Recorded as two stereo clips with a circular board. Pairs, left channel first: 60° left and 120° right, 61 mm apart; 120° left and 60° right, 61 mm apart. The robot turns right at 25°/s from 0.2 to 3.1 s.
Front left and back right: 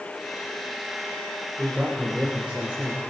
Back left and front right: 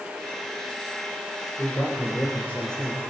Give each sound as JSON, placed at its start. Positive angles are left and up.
{"t": 1.6, "sound": "a man speaking", "azimuth_deg": 155, "distance_m": 3.0}